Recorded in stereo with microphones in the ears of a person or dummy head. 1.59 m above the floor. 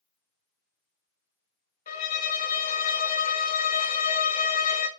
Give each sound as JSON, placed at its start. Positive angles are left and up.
{"t": 1.9, "sound": "a violin", "side_deg": 50, "distance_m": 1.1}